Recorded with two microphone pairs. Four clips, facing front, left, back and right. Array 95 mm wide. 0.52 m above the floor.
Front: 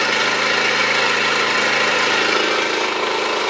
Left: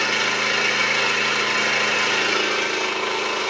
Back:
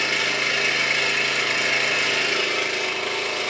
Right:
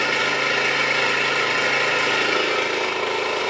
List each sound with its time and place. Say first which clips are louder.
0.0 s an engine running: right 1 dB, front 7 dB; 5° right, 0.9 m